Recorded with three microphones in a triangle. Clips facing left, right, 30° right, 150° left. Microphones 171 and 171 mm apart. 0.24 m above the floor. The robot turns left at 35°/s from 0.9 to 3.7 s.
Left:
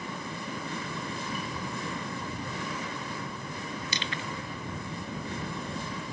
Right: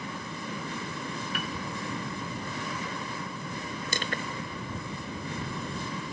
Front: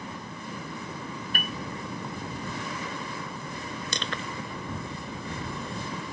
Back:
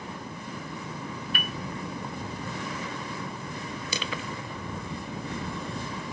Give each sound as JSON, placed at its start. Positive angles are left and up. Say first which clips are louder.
{"t": 1.3, "sound": "a piano", "louder": "right 1 dB, front 2 dB", "azimuth_deg": -75}
{"t": 3.9, "sound": "crushing", "louder": "right 2 dB, back 1 dB", "azimuth_deg": -125}